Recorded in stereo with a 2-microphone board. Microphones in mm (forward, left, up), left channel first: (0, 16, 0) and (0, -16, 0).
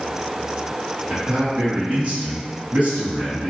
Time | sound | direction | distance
1.1 | a man speaking | 35° right (ahead or behind) | 1.3 m